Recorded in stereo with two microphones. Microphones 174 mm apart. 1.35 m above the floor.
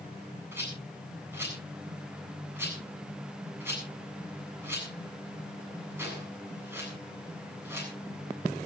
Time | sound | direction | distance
0.5 | a rattle | 15° right (ahead or behind) | 8 m